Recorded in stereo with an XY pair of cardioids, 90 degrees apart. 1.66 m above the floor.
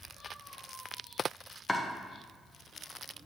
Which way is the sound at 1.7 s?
25° left.